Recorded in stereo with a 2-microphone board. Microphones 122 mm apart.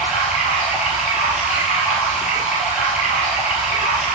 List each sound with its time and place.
0.0 s running water: 10° right (ahead or behind), 2.5 m